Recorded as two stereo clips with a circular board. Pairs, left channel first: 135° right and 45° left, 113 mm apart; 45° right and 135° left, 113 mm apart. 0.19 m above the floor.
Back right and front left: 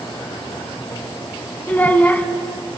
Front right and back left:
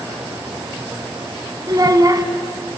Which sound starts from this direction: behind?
A child speaking, at 1.7 s.